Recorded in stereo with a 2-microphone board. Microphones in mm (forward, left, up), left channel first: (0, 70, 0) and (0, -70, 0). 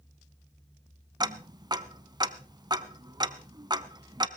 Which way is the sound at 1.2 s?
30° right (ahead or behind).